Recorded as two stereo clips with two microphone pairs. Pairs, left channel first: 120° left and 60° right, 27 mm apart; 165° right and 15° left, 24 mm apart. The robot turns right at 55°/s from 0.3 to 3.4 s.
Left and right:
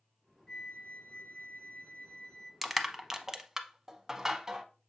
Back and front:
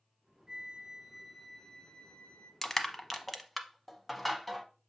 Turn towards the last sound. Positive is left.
turn(degrees=-90)